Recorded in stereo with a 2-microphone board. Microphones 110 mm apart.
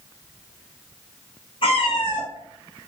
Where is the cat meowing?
55° left (ahead or behind), 1.6 m; by 2.9 s 15° left (ahead or behind), 0.9 m.